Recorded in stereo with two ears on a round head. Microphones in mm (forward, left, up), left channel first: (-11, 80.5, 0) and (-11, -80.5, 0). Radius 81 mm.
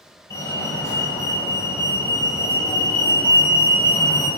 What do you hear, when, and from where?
0.3 s a fire alarm: 20° left (ahead or behind), 4 m